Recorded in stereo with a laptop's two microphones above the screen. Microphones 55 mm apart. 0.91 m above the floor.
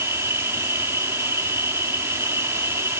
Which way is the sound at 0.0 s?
55° right (ahead or behind).